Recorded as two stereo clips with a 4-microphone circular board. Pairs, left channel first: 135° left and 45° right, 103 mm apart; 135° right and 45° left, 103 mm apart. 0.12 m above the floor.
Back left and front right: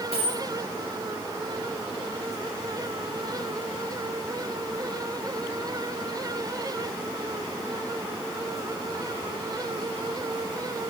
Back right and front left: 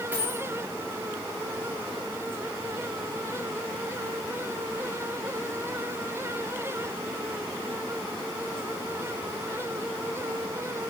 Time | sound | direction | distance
0.1 | a dropped coin | 30° right | 3.5 m